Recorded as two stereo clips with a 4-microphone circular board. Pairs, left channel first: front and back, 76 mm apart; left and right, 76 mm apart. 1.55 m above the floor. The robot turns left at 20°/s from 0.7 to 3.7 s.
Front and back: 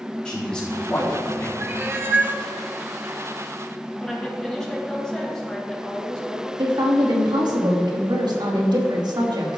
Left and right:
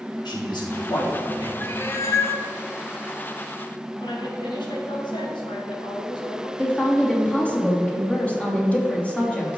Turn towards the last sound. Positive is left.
turn(degrees=165)